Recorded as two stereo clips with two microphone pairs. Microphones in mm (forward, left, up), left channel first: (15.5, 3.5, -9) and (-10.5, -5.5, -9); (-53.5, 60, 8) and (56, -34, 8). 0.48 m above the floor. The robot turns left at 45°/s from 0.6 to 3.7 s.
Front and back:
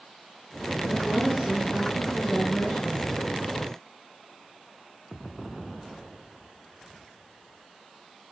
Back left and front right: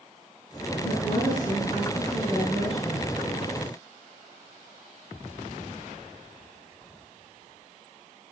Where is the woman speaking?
175° left, 5.5 m; by 3.1 s 75° left, 5.5 m.